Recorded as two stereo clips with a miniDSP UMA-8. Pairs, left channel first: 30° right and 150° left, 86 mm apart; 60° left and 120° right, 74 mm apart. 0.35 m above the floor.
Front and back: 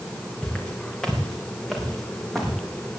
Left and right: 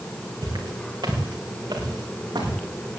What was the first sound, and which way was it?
Footsteps, 110° right.